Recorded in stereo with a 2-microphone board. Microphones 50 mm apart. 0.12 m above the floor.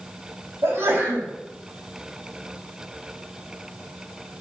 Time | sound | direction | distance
0.6 | a sneeze | 60° right (ahead or behind) | 6 m